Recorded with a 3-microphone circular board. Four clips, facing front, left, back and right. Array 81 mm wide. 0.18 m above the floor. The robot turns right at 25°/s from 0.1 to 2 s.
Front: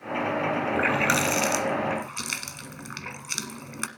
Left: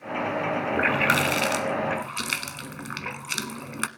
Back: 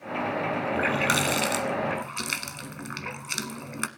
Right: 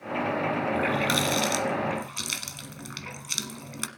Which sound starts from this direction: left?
A running tap, at 0.7 s.